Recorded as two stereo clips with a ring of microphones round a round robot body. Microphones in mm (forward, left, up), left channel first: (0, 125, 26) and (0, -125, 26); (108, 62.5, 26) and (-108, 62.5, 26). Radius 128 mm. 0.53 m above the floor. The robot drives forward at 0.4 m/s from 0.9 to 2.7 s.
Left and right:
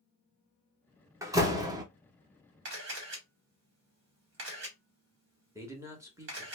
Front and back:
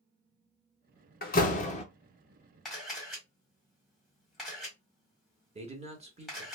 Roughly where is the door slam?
Ahead.